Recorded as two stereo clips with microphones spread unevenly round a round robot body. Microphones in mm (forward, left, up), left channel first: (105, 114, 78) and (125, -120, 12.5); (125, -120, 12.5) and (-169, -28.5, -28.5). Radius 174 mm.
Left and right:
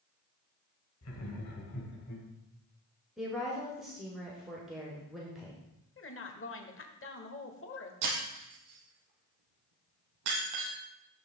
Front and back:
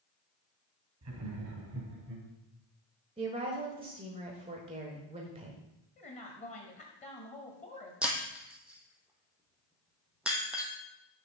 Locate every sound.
1.0 s laughter: 130° left, 2 m; by 2.3 s 110° left, 2.5 m
3.2 s a woman speaking: 150° right, 1.5 m
6.0 s a woman speaking: 55° left, 1.6 m
8.0 s breaking glass: 110° right, 2.5 m